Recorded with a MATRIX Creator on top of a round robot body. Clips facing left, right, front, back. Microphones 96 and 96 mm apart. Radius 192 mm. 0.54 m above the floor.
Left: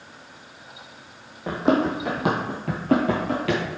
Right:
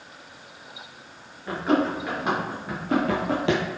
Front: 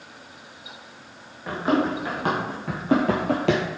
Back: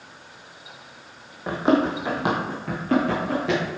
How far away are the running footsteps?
About 1.4 m.